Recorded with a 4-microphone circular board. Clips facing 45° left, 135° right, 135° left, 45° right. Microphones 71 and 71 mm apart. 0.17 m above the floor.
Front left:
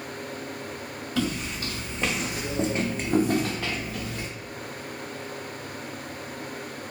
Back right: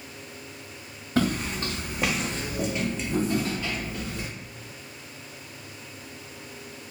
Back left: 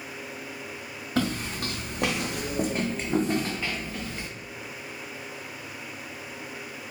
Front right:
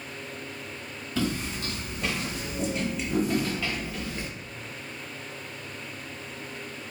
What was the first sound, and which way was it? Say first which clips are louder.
Footsteps: back right 4 dB, back left 2 dB; 175° left.